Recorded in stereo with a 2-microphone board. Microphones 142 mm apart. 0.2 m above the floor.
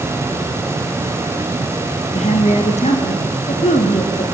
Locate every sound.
2.1 s a woman speaking: 50° left (ahead or behind), 2.5 m